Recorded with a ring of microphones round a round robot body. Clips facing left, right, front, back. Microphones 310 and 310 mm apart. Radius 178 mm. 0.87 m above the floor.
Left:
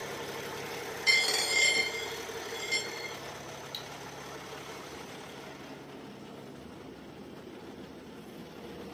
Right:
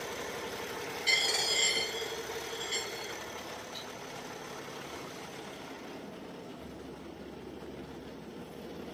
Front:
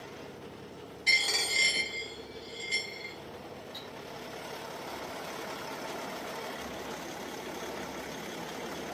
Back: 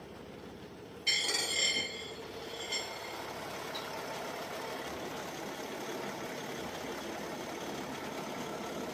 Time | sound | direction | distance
1.1 | a dropped coin | 40° left | 0.7 m
3.7 | cutlery clinking | 95° left | 0.6 m